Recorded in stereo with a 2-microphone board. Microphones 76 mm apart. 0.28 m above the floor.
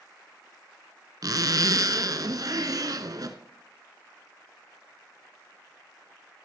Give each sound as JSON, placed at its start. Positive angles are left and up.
{"t": 1.2, "sound": "a zipper", "side_deg": -55, "distance_m": 1.1}